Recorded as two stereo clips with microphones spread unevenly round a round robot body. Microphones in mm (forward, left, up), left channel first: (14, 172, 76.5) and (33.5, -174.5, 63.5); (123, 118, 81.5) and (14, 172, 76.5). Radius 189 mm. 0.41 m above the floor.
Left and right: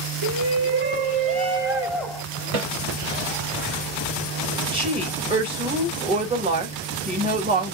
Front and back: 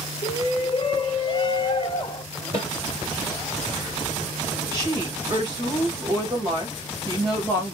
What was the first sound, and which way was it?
A shout, 65° right.